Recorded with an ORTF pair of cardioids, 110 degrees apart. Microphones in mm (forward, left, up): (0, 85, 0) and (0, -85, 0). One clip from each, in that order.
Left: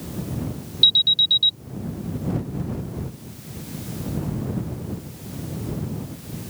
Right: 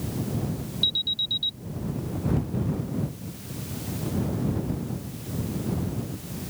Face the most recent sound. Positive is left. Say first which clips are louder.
# left 9 dB
turn(degrees=45)